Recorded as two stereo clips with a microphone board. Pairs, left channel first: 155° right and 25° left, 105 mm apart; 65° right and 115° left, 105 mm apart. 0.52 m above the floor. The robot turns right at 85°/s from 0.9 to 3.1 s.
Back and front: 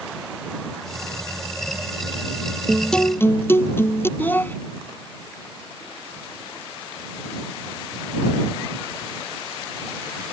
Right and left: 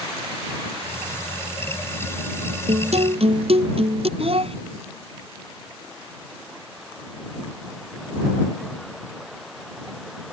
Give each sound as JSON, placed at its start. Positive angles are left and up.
{"t": 2.7, "sound": "a guitar", "azimuth_deg": 100}
{"t": 4.2, "sound": "a child speaking", "azimuth_deg": 130}